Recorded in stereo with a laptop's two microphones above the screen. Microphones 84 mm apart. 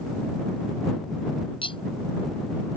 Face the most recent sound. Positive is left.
turn(degrees=80)